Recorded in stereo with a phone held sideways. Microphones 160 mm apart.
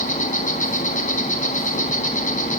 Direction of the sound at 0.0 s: 50° left (ahead or behind).